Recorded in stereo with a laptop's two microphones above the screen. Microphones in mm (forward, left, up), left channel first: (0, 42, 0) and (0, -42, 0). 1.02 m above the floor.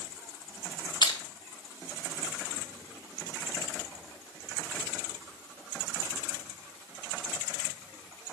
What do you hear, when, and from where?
1.0 s crushing: 65° left (ahead or behind), 1.8 m